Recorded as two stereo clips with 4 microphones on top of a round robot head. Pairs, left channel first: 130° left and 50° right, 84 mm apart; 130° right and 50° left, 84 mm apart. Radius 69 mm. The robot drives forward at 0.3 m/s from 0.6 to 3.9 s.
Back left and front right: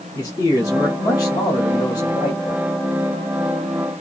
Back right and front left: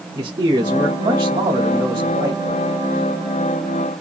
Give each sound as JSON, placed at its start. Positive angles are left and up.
{"t": 0.1, "sound": "a man speaking", "azimuth_deg": 80, "distance_m": 2.5}